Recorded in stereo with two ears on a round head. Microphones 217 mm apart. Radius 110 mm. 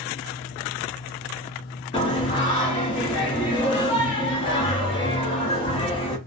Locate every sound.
1.9 s singing: 20° left (ahead or behind), 0.8 m